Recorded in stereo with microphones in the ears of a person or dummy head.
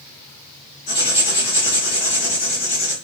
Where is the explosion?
No explosion in this recording.